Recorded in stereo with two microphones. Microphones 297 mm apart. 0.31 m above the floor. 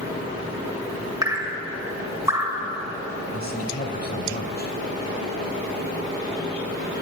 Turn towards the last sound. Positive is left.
turn(degrees=30)  # may be behind; listen again after turning